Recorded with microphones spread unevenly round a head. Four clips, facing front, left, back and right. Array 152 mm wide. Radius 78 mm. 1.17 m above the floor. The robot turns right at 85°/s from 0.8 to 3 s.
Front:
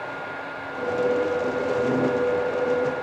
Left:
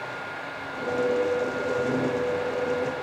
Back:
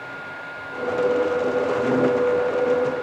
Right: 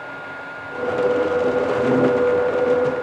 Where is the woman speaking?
No woman speaking in this recording.